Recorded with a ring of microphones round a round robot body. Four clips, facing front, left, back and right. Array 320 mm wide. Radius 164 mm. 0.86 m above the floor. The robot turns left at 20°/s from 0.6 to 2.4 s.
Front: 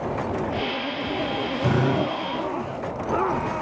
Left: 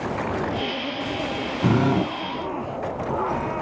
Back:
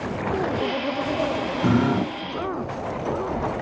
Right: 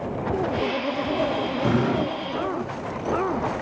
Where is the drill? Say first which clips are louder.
Left 3 dB, back 2 dB; 100° left, 8 m; by 2.1 s 90° left, 8 m.